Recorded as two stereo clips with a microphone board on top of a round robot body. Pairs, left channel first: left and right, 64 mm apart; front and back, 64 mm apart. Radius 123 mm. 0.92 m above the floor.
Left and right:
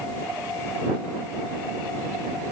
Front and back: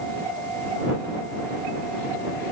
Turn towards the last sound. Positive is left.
No sound to turn to.